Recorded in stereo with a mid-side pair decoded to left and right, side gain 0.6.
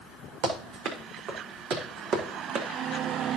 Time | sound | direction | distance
0.4 | running footsteps | 70° right | 4 m